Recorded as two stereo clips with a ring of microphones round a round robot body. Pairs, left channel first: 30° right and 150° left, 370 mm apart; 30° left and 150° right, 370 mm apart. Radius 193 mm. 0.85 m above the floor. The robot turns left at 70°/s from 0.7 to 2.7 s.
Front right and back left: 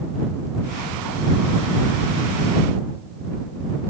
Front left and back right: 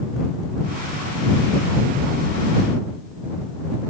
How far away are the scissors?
No scissors in this recording.